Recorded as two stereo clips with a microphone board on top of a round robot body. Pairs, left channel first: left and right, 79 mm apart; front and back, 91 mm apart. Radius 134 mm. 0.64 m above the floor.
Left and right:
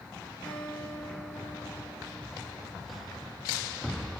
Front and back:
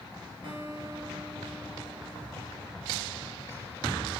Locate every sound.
0.4 s a guitar: 165° left, 3 m